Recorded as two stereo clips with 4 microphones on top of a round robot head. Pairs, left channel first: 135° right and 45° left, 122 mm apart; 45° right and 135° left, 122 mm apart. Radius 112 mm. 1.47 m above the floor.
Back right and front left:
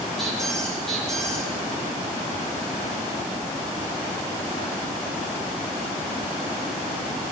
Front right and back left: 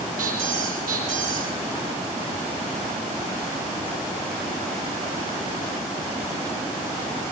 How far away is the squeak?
About 5.5 m.